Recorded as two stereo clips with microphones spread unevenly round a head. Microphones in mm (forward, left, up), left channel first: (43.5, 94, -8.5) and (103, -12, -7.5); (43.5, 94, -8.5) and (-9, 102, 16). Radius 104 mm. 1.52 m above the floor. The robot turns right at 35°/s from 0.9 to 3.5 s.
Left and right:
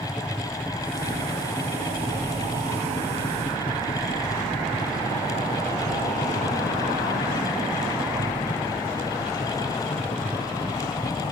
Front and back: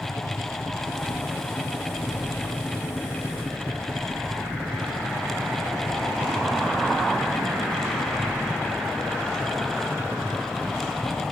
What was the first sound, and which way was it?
A helicopter, 15° left.